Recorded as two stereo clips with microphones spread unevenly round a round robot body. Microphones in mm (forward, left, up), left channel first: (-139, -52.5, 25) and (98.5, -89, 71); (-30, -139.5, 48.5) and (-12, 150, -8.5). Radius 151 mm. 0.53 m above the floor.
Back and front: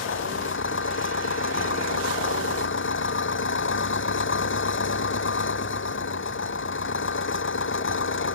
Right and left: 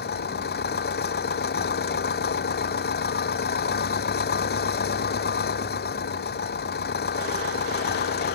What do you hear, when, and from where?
0.0 s an engine running: 150° right